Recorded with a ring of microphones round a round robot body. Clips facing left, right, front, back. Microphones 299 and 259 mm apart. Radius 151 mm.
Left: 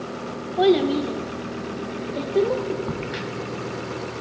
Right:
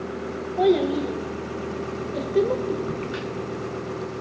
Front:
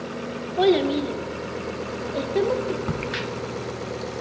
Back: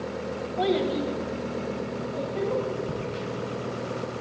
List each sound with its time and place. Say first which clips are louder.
0.6 s a child speaking: left 2 dB, front 6 dB; 30° left, 1.8 m; by 2.8 s 5° right, 2 m
2.9 s a crack: right 1 dB, front 2 dB; 10° left, 0.8 m